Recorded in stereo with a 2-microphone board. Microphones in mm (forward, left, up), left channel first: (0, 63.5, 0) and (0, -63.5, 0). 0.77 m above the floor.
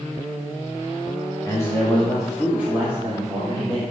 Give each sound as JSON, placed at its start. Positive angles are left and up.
{"t": 1.4, "sound": "a man speaking", "side_deg": 25, "distance_m": 1.0}